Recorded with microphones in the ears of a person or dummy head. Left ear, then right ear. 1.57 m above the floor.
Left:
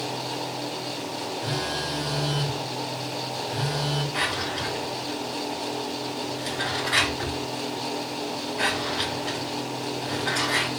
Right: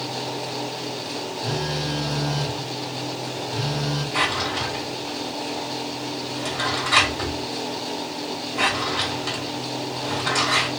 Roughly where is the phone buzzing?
Left.